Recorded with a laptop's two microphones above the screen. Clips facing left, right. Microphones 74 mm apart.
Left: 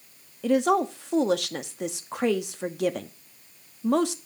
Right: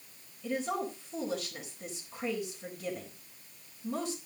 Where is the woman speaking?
75° left (ahead or behind), 1.2 m.